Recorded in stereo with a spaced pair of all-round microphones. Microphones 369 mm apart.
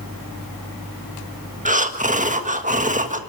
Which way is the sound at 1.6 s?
20° right (ahead or behind).